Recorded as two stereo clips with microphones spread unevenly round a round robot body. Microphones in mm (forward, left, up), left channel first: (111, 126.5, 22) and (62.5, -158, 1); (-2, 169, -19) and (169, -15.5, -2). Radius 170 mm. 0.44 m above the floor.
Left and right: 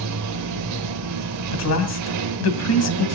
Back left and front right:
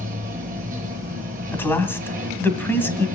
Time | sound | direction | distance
0.0 | running water | 115° right | 0.9 m
1.5 | a man speaking | 50° left | 2.5 m